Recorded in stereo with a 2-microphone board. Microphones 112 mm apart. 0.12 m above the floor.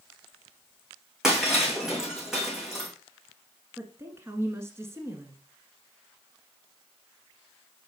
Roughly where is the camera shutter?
I don't hear a camera shutter.